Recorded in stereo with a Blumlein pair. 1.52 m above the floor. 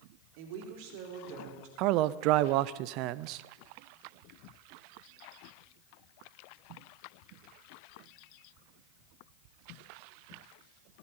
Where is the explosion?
No explosion in this recording.